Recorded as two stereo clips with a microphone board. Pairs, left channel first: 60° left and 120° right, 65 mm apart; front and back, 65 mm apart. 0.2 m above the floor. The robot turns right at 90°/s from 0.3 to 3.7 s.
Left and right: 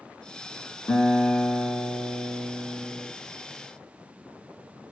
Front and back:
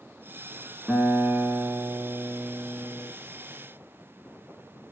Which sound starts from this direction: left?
A guitar, at 0.9 s.